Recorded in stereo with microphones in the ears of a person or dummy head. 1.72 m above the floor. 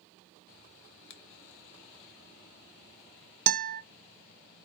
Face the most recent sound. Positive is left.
turn(degrees=-50)  # may be behind; listen again after turning